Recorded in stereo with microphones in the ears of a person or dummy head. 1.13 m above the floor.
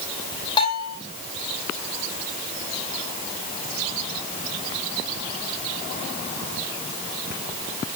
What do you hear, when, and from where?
0.6 s a bell: 25° left (ahead or behind), 3 m